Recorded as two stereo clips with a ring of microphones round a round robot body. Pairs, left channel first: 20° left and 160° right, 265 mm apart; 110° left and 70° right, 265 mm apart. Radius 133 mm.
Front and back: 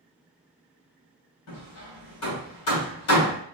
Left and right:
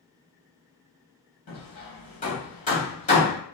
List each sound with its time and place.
1.5 s hammering: 50° left, 2.5 m